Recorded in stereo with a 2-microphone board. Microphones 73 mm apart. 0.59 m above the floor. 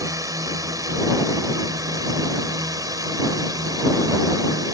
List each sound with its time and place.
0.0 s a drone: 55° right (ahead or behind); by 4.7 s 60° right (ahead or behind)